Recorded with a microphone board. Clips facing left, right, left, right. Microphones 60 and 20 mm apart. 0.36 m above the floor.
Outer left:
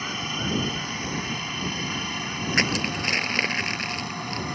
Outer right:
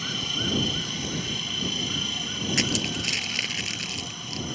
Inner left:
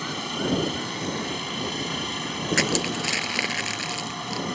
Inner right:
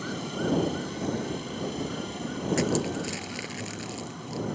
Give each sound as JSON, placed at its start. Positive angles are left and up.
{"t": 0.0, "sound": "a helicopter", "side_deg": 35}
{"t": 2.5, "sound": "crushing", "side_deg": 45}